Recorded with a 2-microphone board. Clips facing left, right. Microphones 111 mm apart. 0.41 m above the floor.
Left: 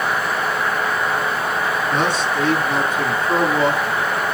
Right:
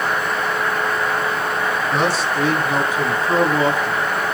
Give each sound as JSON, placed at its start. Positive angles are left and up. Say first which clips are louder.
{"t": 1.9, "sound": "a man speaking", "louder": "right 1 dB", "side_deg": -5, "distance_m": 6.0}